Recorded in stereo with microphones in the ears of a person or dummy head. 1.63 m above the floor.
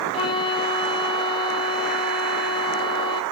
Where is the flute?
25° left (ahead or behind), 1.1 m.